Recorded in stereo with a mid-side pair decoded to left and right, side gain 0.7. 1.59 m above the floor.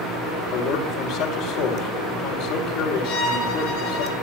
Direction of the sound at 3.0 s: 65° left.